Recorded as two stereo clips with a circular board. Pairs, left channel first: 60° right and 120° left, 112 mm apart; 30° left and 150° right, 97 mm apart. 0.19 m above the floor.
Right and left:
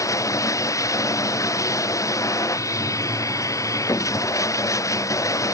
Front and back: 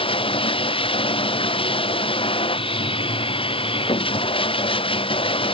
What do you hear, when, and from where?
0.0 s running water: 5° left